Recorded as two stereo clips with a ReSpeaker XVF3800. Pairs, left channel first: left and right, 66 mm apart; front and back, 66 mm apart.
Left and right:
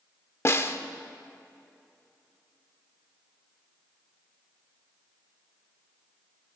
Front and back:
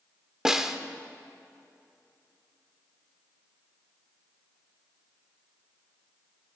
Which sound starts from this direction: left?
A snare drum, at 0.5 s.